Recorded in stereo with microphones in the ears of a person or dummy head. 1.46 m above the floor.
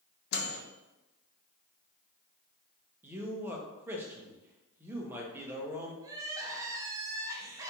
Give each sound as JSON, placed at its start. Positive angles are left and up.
{"t": 0.3, "sound": "a microwave", "side_deg": 65, "distance_m": 0.6}
{"t": 3.0, "sound": "a man speaking", "side_deg": -5, "distance_m": 0.7}
{"t": 6.0, "sound": "crying", "side_deg": -15, "distance_m": 0.5}